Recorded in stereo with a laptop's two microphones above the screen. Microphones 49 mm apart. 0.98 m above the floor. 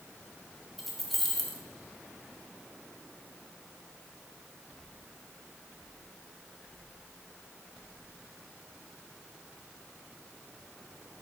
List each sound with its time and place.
0.8 s keys jangling: centre (ahead or behind), 0.7 m